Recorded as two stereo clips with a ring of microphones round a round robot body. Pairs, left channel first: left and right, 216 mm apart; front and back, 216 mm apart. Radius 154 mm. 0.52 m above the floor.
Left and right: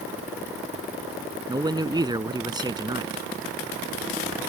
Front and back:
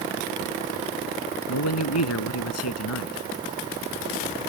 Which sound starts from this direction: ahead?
A man speaking, at 1.5 s.